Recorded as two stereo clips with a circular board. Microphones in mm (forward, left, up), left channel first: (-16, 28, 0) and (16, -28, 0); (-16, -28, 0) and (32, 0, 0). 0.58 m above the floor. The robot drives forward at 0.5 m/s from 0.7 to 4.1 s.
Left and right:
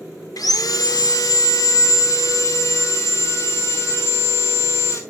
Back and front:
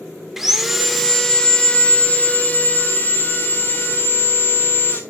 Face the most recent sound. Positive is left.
turn(degrees=160)